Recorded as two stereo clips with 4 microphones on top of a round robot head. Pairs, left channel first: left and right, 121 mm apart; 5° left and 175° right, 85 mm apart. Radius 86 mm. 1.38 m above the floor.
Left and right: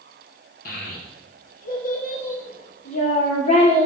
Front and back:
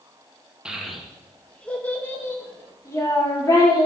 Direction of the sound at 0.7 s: 105° left.